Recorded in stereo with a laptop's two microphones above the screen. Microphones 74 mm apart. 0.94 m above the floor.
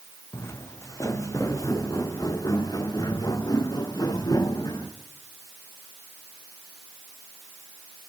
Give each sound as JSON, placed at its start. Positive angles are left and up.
{"t": 0.3, "sound": "footsteps", "side_deg": 35, "distance_m": 2.5}